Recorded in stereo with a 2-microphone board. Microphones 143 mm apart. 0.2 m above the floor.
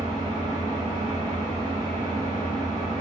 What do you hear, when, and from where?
0.0 s an engine running: 70° left (ahead or behind), 1.4 m